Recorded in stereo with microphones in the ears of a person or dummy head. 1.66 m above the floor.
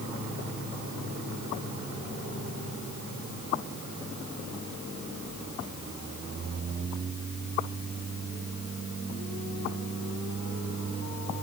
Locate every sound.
Only background noise.